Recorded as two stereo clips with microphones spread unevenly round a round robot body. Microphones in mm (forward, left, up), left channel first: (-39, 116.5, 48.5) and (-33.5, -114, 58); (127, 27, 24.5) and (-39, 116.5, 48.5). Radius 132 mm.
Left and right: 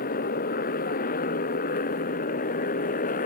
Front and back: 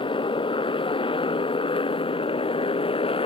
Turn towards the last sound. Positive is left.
turn(degrees=35)